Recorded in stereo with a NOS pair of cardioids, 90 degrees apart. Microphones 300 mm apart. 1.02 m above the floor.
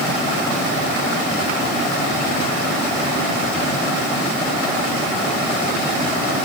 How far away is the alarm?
I don't hear an alarm.